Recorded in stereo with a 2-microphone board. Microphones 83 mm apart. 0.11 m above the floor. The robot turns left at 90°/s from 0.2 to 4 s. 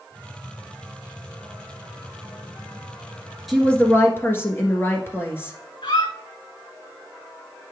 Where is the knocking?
I don't hear knocking.